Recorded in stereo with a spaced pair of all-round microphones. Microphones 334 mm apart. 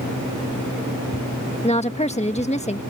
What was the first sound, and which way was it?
A woman speaking, 20° left (ahead or behind).